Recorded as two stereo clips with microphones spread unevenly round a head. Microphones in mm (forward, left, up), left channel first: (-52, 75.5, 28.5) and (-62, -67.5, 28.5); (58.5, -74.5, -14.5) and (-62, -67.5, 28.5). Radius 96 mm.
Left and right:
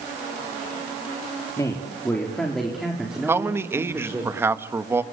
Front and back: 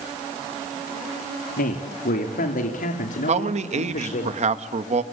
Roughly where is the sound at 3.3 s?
Behind.